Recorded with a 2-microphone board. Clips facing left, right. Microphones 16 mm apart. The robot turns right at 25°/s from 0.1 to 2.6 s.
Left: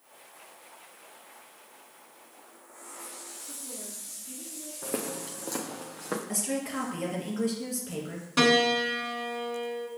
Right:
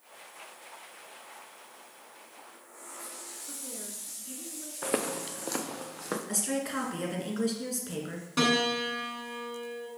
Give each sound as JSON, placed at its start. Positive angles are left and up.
{"t": 3.5, "sound": "a woman speaking", "side_deg": -50, "distance_m": 1.8}
{"t": 4.8, "sound": "footsteps", "side_deg": -50, "distance_m": 0.6}
{"t": 6.3, "sound": "a woman speaking", "side_deg": -20, "distance_m": 1.9}
{"t": 8.4, "sound": "a piano", "side_deg": 20, "distance_m": 1.1}